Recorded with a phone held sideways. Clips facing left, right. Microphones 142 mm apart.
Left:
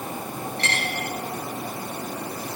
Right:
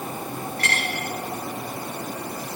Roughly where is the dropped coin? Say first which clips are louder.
Even; left.